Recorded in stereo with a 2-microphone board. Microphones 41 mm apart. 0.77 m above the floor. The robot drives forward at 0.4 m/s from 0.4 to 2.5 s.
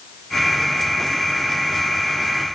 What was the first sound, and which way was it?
Only background noise.